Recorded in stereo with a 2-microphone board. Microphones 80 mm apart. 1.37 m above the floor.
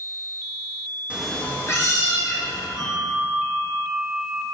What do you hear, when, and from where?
1.1 s a cat meowing: 15° right (ahead or behind), 0.7 m; by 2.7 s 50° left (ahead or behind), 2.5 m
2.8 s a bell: 60° left (ahead or behind), 1.6 m